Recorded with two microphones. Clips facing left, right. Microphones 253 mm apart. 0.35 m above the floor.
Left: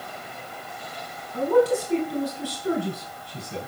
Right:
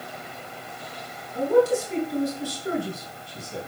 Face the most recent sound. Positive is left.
turn(degrees=65)  # may be behind; listen again after turning